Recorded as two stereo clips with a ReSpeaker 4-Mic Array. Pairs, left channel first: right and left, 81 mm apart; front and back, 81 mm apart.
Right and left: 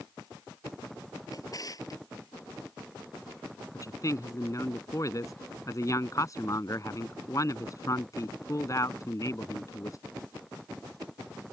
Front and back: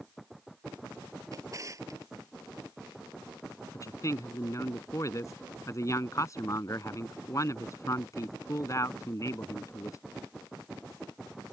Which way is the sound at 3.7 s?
45° right.